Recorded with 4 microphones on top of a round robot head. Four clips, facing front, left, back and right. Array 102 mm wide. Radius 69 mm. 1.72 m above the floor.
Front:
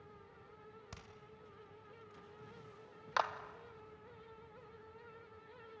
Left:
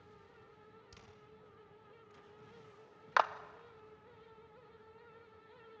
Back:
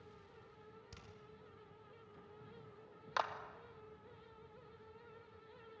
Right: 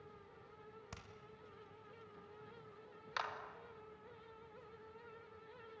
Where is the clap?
80° left, 1.0 m.